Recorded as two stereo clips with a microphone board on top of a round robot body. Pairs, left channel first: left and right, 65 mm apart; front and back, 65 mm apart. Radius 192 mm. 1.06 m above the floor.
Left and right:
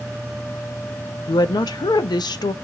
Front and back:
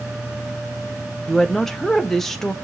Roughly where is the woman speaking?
Left.